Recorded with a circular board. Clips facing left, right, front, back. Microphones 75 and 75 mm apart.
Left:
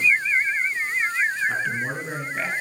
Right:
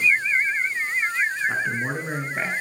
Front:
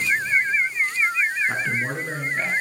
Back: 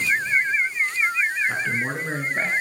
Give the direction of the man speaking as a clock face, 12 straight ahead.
1 o'clock.